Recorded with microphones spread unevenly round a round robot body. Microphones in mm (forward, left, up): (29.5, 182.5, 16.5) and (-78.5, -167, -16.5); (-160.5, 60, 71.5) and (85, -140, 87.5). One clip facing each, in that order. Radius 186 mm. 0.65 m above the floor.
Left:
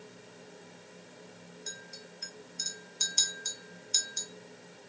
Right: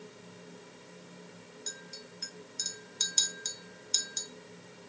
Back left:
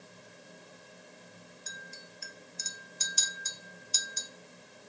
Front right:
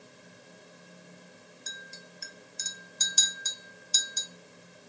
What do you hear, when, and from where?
1.7 s a clink: 80° right, 0.7 m